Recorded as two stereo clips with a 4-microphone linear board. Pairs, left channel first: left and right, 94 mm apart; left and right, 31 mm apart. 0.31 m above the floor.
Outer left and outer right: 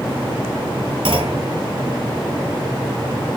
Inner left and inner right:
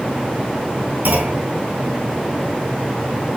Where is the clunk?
65° right (ahead or behind), 2.5 m.